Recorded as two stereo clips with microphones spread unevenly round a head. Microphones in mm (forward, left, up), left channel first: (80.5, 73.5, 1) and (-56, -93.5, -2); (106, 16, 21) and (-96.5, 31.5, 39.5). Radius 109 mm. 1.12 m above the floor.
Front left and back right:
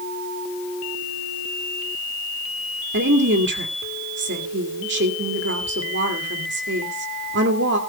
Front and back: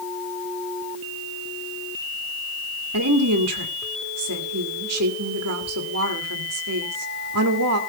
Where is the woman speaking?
170° right, 2.5 m.